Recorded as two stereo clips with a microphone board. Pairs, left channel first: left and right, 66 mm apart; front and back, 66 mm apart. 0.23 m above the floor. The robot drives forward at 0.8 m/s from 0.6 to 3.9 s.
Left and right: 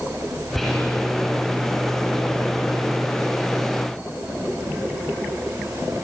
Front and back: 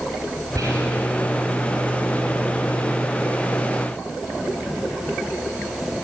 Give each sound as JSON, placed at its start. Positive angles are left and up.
{"t": 0.6, "sound": "whispering", "azimuth_deg": 175, "distance_m": 3.0}